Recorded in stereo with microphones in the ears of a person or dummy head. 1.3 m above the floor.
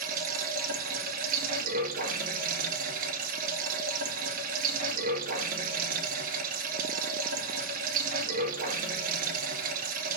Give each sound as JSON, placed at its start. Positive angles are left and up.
{"t": 0.0, "sound": "running water", "side_deg": -50, "distance_m": 2.0}